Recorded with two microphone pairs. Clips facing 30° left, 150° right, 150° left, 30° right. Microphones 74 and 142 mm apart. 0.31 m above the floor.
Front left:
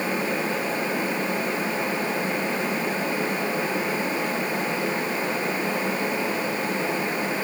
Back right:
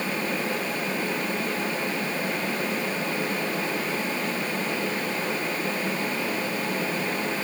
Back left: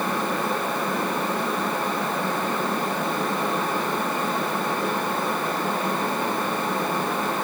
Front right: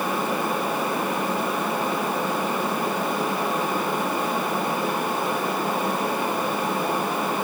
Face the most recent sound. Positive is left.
No sound to turn to.